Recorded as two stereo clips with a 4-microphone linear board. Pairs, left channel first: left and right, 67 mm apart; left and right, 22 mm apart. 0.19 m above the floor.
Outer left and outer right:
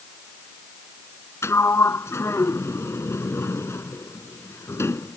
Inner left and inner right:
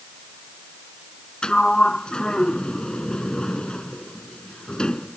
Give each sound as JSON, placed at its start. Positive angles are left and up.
{"t": 1.4, "sound": "a sliding door", "side_deg": 45}